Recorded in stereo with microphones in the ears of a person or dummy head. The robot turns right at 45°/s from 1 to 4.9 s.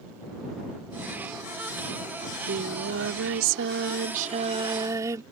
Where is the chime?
I don't hear a chime.